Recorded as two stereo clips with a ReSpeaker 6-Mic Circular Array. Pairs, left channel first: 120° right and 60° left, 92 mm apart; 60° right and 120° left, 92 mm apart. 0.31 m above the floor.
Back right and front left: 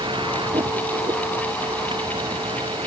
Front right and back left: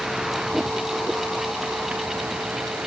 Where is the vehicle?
35° left; by 2.9 s 45° left.